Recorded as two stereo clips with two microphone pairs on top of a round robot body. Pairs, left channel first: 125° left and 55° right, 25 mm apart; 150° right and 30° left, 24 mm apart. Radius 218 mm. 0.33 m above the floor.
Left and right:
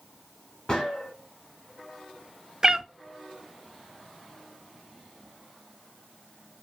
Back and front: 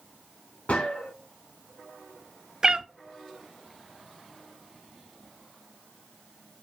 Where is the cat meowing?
5° right, 0.5 m.